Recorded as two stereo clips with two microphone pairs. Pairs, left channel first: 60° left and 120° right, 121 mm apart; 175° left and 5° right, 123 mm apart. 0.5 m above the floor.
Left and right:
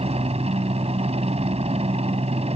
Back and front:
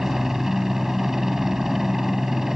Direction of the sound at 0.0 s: 90° right.